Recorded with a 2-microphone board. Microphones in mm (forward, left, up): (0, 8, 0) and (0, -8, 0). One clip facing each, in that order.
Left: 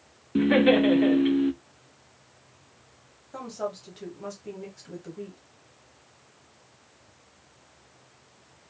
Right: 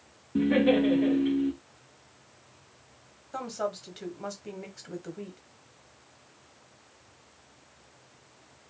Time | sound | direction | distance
0.3 | laughter | 40° left (ahead or behind) | 0.6 m
3.3 | a woman speaking | 30° right (ahead or behind) | 1.1 m